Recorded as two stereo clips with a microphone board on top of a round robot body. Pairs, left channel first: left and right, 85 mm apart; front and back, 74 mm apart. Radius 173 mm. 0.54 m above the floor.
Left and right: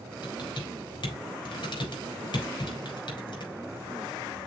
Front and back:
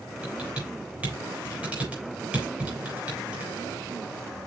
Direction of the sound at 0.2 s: 110° left.